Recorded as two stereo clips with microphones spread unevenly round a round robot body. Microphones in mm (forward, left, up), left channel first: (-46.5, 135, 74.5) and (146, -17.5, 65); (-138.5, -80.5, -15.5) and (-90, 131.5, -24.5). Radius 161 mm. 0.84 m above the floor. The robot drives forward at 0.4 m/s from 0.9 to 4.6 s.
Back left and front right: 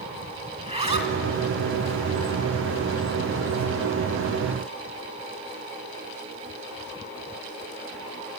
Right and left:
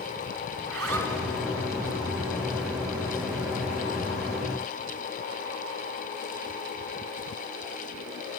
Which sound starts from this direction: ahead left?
A zipper, at 0.6 s.